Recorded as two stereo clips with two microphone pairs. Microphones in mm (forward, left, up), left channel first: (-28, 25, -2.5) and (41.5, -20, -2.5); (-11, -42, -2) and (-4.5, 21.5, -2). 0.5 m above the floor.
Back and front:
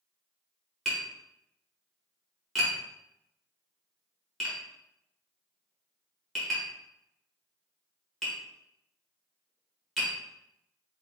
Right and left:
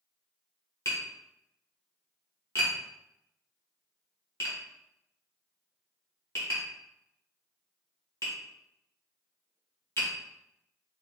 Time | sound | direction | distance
0.8 | tapping | 125° right | 1.6 m